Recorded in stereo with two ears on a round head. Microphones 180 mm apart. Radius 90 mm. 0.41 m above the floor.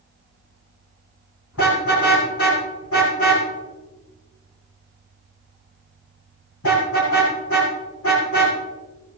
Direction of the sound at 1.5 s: 85° left.